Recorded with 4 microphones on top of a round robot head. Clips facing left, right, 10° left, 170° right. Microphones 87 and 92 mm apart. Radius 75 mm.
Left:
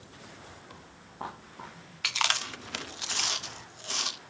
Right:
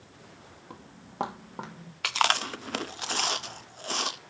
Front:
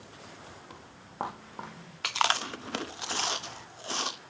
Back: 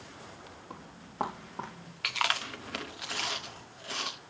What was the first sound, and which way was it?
Footsteps, 100° right.